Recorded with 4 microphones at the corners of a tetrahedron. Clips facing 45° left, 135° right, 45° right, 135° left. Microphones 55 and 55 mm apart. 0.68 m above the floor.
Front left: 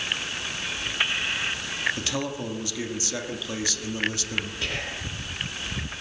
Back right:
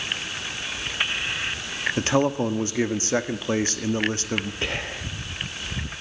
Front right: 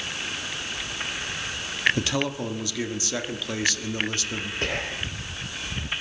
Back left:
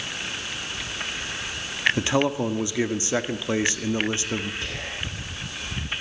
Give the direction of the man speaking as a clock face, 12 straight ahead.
6 o'clock.